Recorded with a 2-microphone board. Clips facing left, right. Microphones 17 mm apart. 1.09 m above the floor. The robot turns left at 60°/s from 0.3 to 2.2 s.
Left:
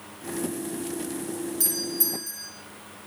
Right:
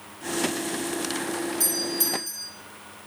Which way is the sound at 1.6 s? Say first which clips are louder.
Right 1 dB; 15° right.